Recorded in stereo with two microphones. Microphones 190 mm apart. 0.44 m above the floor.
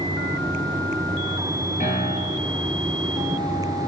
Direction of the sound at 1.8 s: 40° left (ahead or behind).